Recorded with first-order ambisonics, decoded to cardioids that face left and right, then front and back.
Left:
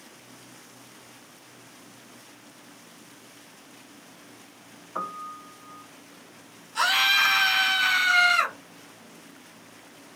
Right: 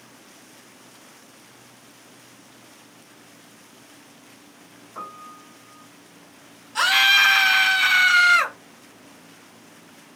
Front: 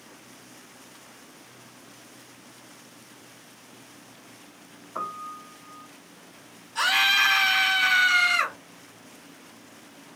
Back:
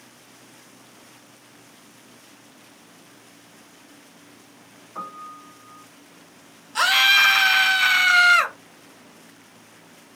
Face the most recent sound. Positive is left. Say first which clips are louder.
# right 5 dB, back 5 dB
turn(degrees=-165)